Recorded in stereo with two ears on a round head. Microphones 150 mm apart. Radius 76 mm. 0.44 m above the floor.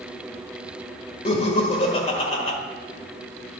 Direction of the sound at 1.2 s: 40° left (ahead or behind).